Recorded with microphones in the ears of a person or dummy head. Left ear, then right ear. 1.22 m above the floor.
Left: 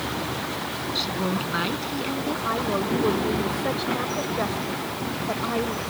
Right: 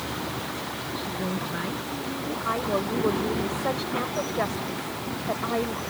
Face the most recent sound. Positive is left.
turn(degrees=-10)  # may be behind; listen again after turning